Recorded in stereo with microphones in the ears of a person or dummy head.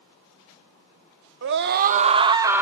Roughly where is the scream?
Right.